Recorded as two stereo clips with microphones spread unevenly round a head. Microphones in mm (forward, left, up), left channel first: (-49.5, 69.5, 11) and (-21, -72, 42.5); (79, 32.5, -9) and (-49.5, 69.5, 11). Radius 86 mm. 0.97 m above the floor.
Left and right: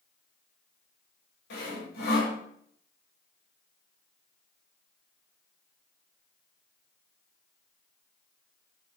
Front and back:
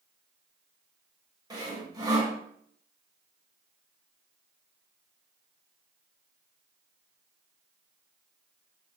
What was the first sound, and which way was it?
Sawing, 110° left.